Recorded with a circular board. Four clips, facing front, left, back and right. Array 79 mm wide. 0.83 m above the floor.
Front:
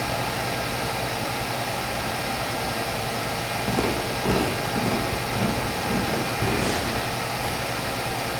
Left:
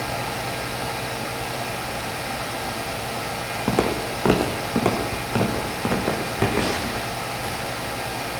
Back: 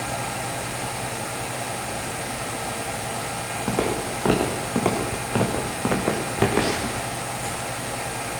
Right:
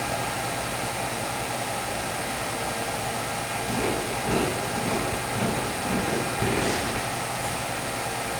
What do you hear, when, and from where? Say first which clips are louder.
3.7 s footsteps: left 6 dB, back 1 dB; 100° left, 4 m; by 7.0 s 160° left, 5 m